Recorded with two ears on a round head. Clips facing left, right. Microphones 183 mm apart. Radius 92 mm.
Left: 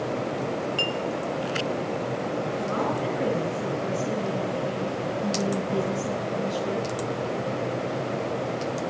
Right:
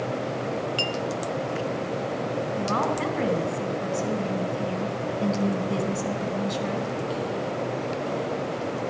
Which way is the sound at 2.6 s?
75° right (ahead or behind).